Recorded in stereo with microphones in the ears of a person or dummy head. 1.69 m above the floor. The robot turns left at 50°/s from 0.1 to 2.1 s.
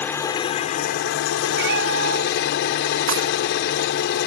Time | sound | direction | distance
0.0 | an engine running | 165° left | ?
1.5 | a cat meowing | 60° right (ahead or behind) | ?
3.1 | breaking glass | 70° right (ahead or behind) | ?